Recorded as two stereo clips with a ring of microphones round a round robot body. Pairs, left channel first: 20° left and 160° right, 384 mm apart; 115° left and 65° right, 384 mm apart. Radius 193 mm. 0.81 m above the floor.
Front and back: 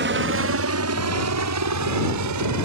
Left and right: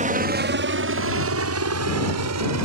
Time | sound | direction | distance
0.0 | a helicopter | 125° right | ?